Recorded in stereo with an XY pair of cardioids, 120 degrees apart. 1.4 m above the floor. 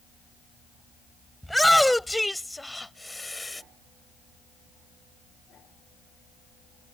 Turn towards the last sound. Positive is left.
turn(degrees=15)